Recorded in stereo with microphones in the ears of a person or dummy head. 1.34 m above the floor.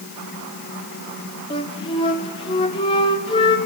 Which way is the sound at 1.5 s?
30° left (ahead or behind).